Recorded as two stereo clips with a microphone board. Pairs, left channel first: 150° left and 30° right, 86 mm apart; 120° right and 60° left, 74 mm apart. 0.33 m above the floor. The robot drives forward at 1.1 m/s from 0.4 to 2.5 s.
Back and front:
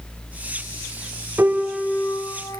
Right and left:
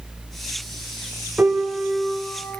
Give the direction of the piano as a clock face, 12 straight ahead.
12 o'clock.